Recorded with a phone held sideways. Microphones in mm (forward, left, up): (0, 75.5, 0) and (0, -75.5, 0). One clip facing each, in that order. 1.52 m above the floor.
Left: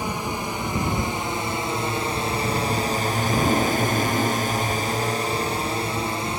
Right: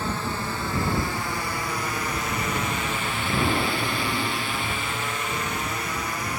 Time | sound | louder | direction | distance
0.0 | a drone | left 1 dB | 15° left (ahead or behind) | ?
3.3 | an explosion | left 3 dB | 15° left (ahead or behind) | ?